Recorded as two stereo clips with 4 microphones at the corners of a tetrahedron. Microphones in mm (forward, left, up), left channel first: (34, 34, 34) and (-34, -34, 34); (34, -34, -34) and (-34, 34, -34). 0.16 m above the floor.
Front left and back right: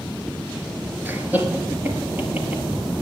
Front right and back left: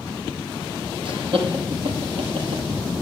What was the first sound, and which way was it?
Laughter, 155° left.